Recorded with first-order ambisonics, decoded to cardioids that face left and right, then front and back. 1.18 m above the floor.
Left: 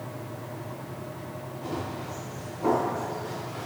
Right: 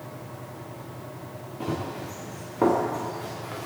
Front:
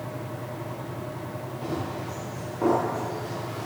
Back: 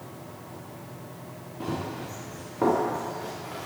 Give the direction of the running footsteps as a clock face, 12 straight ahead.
4 o'clock.